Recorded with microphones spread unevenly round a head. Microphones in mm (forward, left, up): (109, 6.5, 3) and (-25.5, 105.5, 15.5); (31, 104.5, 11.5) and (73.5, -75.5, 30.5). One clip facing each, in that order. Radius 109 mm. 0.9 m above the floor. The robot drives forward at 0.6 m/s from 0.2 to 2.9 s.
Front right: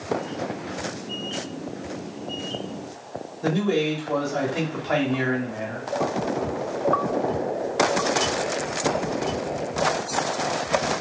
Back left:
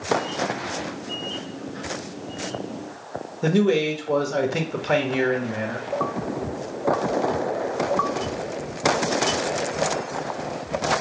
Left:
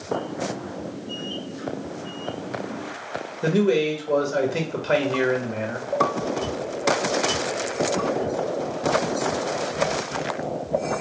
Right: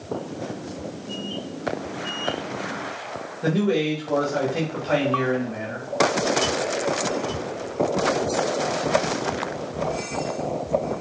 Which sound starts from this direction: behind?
A man speaking, at 3.4 s.